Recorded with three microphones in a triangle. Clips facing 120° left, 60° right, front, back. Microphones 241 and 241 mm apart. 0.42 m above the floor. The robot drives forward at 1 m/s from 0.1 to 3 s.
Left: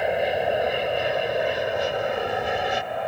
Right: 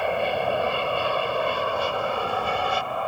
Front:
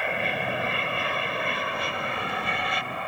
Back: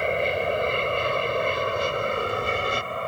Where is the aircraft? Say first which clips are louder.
Left 2 dB, back 6 dB; 170° right; by 3.1 s 175° right.